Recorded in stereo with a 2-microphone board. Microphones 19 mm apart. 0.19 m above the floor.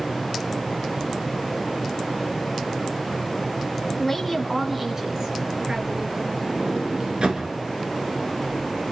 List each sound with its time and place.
4.0 s a woman speaking: 10° left (ahead or behind), 1.2 m; by 6.4 s 35° right (ahead or behind), 3 m
6.5 s a sliding door: 65° right (ahead or behind), 2.5 m